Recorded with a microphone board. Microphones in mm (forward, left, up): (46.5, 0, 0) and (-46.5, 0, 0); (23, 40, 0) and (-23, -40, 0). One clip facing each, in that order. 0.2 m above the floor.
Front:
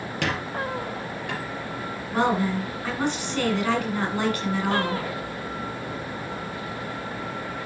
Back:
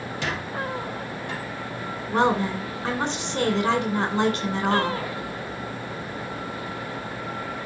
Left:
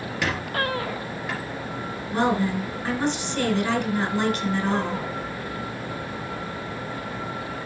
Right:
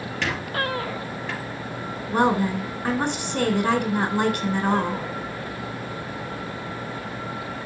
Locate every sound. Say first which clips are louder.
0.2 s a squeak: front 2 dB, left 1 dB; 20° right, 3 m
2.1 s a woman speaking: back 1 dB, right 2 dB; 125° right, 2.0 m